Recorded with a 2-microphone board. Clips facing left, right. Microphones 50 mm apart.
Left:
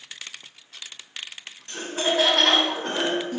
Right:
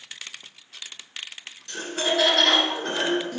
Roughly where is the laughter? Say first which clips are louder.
Left 1 dB; left.